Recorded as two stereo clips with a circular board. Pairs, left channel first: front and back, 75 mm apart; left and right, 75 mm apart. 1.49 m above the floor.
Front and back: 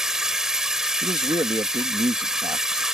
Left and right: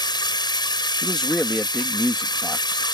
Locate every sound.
0.0 s running water: 95° left
1.0 s a man speaking: 175° left